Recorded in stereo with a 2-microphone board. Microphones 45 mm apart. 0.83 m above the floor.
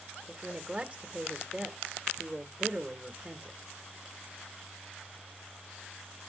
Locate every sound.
0.3 s a woman speaking: 25° right (ahead or behind), 1.2 m